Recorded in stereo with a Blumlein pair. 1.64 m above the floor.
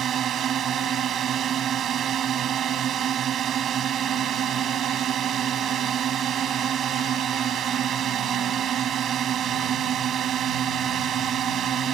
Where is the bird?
No bird in this recording.